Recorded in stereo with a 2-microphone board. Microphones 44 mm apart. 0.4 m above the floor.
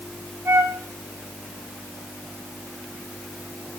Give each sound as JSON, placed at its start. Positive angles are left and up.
{"t": 0.5, "sound": "a flute", "side_deg": -65, "distance_m": 3.5}